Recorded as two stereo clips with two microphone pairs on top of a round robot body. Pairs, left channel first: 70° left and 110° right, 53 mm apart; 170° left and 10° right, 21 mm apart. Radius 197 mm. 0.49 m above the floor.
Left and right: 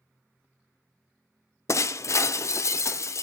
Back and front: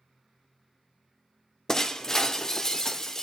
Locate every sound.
1.7 s breaking glass: 100° left, 0.5 m